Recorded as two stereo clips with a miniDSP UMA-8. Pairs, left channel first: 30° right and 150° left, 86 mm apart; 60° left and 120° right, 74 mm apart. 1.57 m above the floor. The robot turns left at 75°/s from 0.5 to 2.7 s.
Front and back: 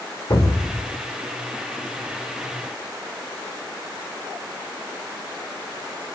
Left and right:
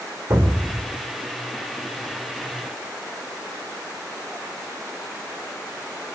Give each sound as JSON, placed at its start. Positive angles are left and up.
{"t": 0.3, "sound": "an explosion", "azimuth_deg": -70, "distance_m": 2.0}